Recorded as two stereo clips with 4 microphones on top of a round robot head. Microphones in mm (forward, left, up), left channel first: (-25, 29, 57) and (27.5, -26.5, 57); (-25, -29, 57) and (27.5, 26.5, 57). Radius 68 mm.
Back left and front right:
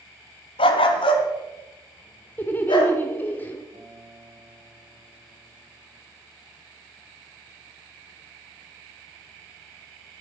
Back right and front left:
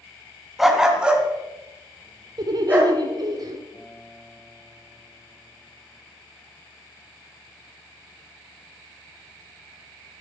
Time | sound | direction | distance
0.6 | a dog barking | 135° left | 1.6 m
2.4 | laughter | 70° left | 1.4 m
3.7 | a guitar | 75° right | 9 m